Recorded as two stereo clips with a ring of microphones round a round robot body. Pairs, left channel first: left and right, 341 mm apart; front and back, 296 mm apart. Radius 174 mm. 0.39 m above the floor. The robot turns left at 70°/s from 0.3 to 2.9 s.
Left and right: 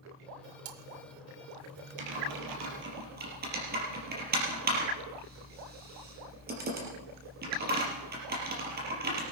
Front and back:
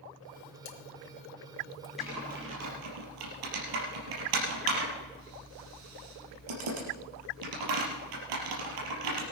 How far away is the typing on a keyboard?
About 4.5 m.